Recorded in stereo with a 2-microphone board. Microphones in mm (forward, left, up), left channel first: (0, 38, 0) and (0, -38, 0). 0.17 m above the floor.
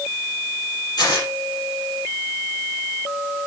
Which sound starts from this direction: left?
Tearing paper, at 1.0 s.